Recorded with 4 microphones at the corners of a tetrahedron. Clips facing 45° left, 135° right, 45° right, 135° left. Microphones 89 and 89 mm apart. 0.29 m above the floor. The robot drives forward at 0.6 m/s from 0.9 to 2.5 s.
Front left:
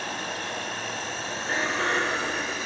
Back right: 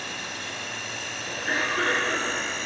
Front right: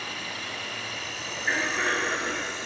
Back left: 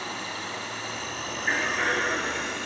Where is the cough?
135° right, 4.5 m; by 2.6 s 140° right, 5 m.